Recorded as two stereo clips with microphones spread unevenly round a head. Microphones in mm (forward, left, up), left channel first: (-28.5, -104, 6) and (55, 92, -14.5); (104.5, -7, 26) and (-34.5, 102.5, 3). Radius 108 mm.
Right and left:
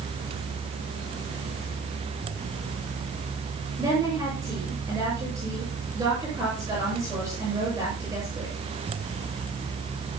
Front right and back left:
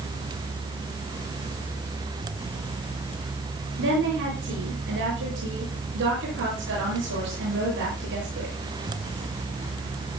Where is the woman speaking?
145° left, 8 m.